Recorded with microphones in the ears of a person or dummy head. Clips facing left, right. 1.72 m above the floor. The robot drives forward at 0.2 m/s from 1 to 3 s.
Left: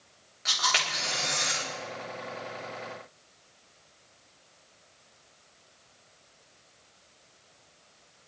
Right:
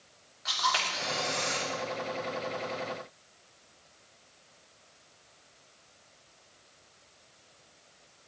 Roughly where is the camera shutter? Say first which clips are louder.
Right 1 dB; left.